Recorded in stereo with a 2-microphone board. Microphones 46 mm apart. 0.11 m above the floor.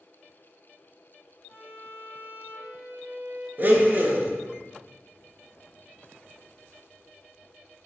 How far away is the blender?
About 0.5 m.